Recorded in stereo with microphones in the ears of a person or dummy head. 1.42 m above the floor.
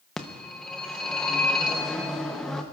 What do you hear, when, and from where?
0.2 s a phone ringing: centre (ahead or behind), 0.8 m